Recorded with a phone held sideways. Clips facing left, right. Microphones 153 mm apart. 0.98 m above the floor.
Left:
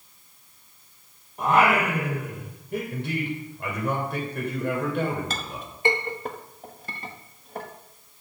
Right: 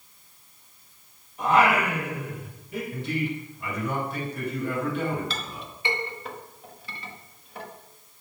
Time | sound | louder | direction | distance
1.4 | singing | even | 50° left (ahead or behind) | 5.5 m
2.9 | a man speaking | even | 65° left (ahead or behind) | 3.5 m
5.3 | a clink | left 2 dB | 45° left (ahead or behind) | 0.9 m